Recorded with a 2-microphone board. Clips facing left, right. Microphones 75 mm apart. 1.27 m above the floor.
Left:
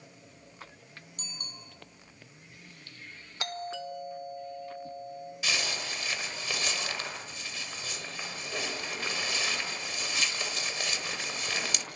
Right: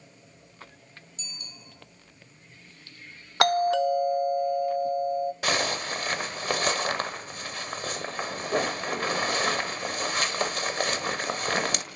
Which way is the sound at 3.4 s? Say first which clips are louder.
Right 15 dB; 65° right (ahead or behind).